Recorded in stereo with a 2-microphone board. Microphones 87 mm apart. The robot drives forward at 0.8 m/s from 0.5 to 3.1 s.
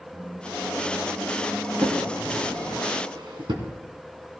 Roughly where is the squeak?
Right.